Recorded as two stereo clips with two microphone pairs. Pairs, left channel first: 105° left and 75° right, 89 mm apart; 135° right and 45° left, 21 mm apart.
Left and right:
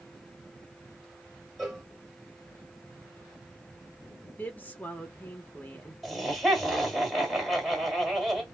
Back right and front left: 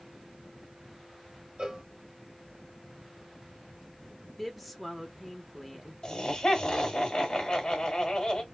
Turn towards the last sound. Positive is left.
turn(degrees=-165)